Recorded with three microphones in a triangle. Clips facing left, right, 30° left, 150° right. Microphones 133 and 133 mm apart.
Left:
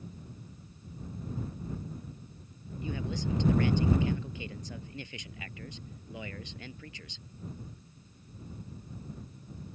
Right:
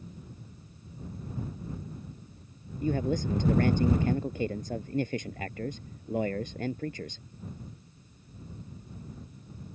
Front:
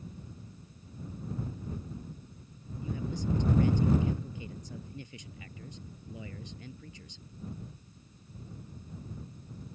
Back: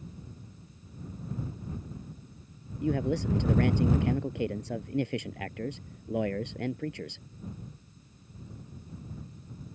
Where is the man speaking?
130° right.